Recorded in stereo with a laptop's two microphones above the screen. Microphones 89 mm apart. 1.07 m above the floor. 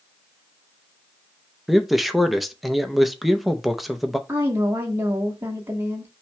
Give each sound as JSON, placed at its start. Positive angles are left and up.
{"t": 1.7, "sound": "a man speaking", "side_deg": 0, "distance_m": 0.7}
{"t": 4.3, "sound": "a woman speaking", "side_deg": -25, "distance_m": 1.2}